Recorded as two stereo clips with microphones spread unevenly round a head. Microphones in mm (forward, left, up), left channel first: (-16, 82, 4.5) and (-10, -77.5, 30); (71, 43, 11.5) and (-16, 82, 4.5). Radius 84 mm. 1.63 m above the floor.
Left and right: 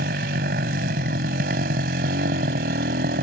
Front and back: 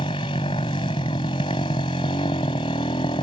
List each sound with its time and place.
0.0 s a motorcycle: 70° right